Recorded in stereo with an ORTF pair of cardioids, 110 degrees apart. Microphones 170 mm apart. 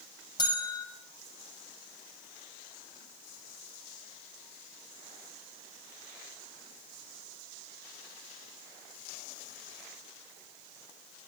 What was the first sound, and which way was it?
A bell, 25° left.